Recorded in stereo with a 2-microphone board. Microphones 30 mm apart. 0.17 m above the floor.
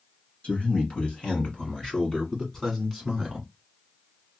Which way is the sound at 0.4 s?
45° left (ahead or behind).